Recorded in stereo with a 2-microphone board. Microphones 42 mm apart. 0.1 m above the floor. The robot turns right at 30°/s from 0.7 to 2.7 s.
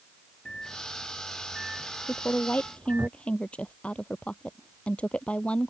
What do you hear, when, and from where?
0.5 s a microwave: 15° left (ahead or behind); by 3.1 s 45° right (ahead or behind)
2.1 s a woman speaking: 45° left (ahead or behind); by 5.7 s 30° left (ahead or behind)